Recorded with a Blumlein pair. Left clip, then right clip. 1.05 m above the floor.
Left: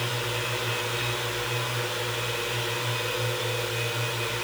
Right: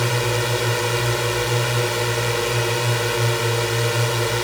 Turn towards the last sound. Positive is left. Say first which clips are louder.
# right 7 dB
turn(degrees=-60)